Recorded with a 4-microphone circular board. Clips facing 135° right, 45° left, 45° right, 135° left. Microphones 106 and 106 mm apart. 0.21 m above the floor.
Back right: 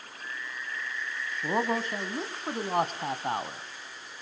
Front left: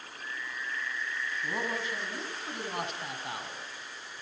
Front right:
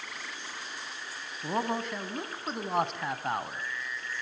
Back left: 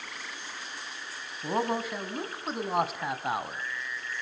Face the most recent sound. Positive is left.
turn(degrees=-140)